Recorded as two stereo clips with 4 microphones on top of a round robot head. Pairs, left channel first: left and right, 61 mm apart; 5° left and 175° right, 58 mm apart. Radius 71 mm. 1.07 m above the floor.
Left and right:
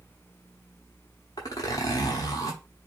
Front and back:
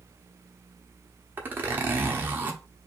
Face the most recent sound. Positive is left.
turn(degrees=135)